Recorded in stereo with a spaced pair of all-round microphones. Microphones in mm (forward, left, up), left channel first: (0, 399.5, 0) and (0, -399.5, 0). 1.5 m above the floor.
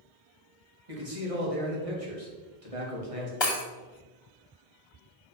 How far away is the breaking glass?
About 1.2 m.